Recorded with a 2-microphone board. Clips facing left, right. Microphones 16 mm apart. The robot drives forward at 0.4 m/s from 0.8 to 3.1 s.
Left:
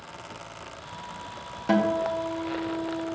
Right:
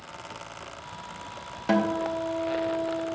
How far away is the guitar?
About 1.1 m.